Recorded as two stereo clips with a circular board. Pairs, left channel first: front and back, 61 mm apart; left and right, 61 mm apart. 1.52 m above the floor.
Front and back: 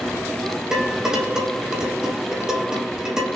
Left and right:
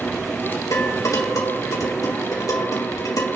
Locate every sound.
0.7 s dishes clattering: 100° left, 2.5 m